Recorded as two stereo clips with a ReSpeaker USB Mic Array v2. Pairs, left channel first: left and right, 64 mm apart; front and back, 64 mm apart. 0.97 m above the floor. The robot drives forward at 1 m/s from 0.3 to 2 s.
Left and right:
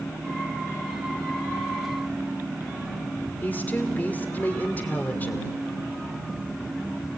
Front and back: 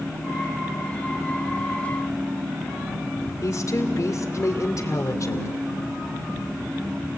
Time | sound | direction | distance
3.4 | a woman speaking | 30° left | 2.5 m